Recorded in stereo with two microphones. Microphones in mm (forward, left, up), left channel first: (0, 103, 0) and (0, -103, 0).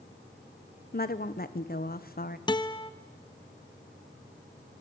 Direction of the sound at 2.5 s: 20° left (ahead or behind).